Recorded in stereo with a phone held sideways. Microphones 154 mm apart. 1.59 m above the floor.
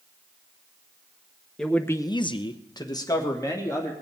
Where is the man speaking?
5° left (ahead or behind), 0.9 m; by 3.9 s 20° left (ahead or behind), 2.5 m.